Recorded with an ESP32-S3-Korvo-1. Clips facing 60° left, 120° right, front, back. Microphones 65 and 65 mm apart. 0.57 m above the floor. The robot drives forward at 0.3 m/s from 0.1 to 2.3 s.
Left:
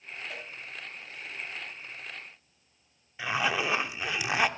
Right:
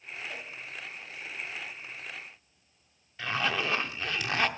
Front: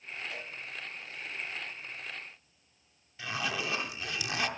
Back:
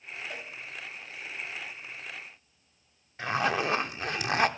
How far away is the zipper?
About 0.6 m.